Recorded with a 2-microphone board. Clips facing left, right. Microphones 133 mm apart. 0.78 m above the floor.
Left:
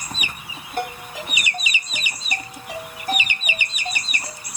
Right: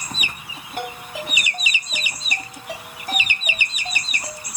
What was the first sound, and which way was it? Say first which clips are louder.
A ringtone: left 2 dB; 10° right (ahead or behind).